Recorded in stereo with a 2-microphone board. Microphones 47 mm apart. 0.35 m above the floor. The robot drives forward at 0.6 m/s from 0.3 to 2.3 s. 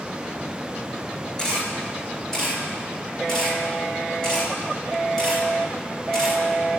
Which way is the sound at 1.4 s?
15° left (ahead or behind).